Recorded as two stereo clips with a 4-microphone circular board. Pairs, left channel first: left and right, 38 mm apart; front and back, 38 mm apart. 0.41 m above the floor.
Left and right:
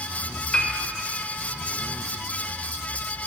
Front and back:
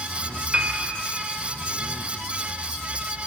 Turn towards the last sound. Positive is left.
turn(degrees=145)